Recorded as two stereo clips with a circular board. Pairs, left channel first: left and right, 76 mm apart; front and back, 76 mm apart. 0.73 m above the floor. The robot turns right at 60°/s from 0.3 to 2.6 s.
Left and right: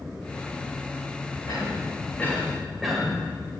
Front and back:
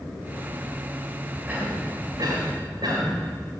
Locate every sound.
1.5 s a cough: 110° left, 3.5 m; by 3.1 s straight behind, 3.5 m